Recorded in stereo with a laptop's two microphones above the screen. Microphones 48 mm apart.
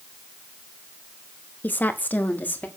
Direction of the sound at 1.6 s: 40° left (ahead or behind).